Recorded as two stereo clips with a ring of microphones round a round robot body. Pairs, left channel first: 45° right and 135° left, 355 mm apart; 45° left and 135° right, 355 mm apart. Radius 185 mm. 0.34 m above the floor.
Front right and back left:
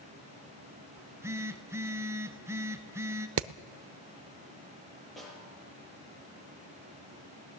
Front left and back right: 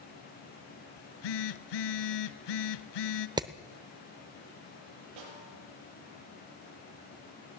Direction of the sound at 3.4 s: 155° left.